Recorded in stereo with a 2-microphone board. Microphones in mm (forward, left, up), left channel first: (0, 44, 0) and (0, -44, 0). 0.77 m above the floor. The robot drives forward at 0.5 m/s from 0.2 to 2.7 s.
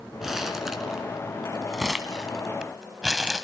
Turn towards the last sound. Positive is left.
turn(degrees=-10)  # may be behind; listen again after turning